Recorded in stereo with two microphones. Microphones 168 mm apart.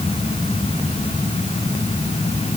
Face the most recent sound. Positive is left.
No sound to turn to.